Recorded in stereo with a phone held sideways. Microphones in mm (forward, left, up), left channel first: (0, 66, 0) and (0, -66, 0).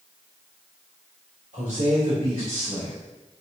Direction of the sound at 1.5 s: 80° right.